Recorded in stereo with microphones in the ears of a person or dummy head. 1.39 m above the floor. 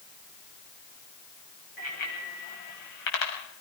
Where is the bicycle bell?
40° left (ahead or behind), 6 m; by 3.3 s 60° left (ahead or behind), 6 m.